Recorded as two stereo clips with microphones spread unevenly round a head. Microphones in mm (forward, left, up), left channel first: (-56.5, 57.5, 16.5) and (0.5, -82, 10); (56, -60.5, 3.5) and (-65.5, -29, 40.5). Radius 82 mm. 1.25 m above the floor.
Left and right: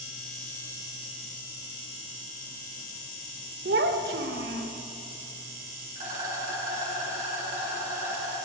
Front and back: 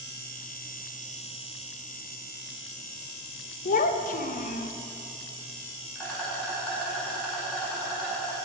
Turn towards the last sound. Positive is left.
turn(degrees=-100)